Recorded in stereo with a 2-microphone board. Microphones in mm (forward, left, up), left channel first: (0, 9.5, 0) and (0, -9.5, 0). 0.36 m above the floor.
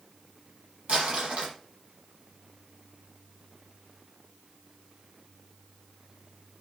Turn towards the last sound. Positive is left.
turn(degrees=-65)  # may be behind; listen again after turning